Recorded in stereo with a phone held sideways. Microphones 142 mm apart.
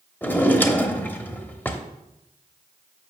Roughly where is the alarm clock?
I don't hear an alarm clock.